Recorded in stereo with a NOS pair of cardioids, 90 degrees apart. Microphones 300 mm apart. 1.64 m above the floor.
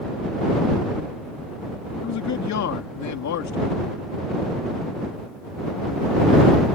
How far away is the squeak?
No squeak in this recording.